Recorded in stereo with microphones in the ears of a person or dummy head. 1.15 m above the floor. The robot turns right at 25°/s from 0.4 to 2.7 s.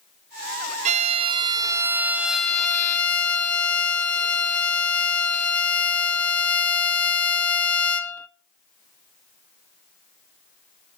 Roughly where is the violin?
Ahead right.